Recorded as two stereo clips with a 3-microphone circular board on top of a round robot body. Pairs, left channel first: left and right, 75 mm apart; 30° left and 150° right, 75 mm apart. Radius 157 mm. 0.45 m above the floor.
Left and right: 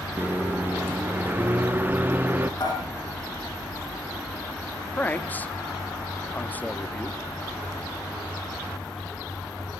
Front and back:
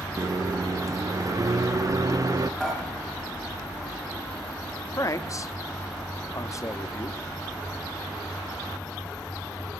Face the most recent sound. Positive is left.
turn(degrees=35)